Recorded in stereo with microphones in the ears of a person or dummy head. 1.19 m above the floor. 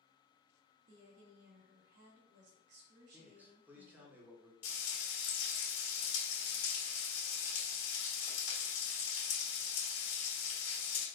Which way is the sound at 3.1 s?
10° right (ahead or behind).